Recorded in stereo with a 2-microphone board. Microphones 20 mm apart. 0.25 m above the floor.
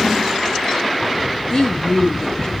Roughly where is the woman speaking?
Left.